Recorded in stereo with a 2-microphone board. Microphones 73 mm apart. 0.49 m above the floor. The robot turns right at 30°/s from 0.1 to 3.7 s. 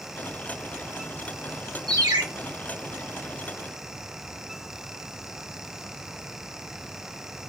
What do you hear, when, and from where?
1.9 s a ringtone: 75° right (ahead or behind), 0.8 m; by 2.2 s 70° right (ahead or behind), 0.8 m